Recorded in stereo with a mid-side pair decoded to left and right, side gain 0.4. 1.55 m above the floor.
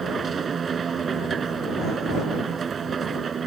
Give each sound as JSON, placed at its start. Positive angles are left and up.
{"t": 0.0, "sound": "a machine running", "azimuth_deg": -50}